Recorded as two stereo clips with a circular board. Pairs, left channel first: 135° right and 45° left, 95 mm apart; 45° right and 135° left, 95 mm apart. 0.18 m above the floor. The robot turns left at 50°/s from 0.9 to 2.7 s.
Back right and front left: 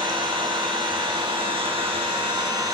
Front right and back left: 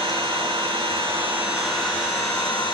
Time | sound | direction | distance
0.0 | an engine running | 85° left | 7 m